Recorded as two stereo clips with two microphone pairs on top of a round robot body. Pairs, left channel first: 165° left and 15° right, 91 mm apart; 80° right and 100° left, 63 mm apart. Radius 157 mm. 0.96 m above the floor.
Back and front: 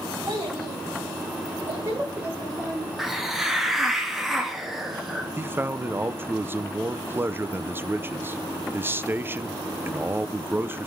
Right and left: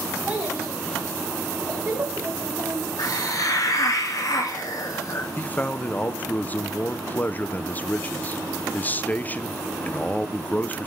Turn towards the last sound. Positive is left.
turn(degrees=-40)